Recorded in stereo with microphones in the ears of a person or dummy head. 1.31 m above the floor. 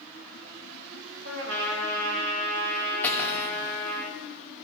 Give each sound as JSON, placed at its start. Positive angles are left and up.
{"t": 1.2, "sound": "a trumpet", "side_deg": -65, "distance_m": 3.0}
{"t": 3.0, "sound": "cutlery clinking", "side_deg": 15, "distance_m": 2.0}